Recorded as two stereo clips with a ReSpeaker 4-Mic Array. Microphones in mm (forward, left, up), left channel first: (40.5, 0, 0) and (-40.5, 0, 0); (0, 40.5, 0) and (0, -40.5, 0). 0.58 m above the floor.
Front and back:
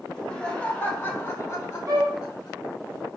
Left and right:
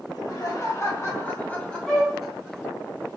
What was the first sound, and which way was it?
Laughter, 80° left.